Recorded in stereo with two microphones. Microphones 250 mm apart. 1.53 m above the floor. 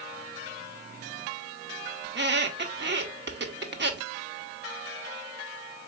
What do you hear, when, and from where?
2.0 s a squeak: 45° right (ahead or behind), 0.7 m